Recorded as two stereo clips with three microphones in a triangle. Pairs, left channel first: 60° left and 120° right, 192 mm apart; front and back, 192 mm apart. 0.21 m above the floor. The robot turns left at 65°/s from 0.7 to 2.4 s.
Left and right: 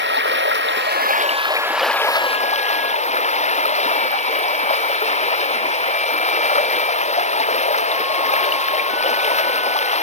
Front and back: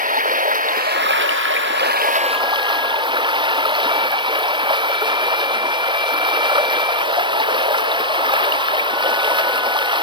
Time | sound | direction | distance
0.0 | running water | 135° right | ?